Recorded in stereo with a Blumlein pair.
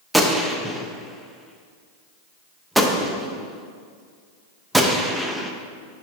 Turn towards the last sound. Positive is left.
turn(degrees=-5)